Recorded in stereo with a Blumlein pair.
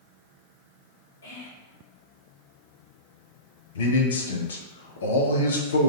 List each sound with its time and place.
1.2 s whispering: 70° left, 1.2 m
3.8 s a man speaking: 65° left, 0.6 m